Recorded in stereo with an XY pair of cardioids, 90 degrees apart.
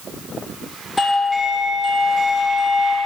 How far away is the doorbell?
About 2 m.